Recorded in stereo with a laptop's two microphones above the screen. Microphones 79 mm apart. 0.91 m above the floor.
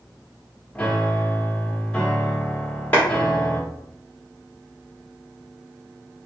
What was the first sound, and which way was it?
A piano, 15° left (ahead or behind).